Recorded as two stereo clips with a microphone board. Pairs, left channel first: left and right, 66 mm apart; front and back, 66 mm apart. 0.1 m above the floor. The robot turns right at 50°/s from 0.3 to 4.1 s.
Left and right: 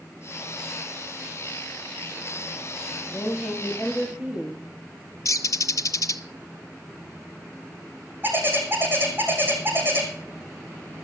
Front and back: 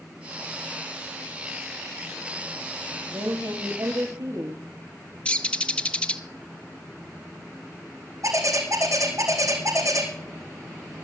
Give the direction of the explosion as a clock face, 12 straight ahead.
No explosion in this recording.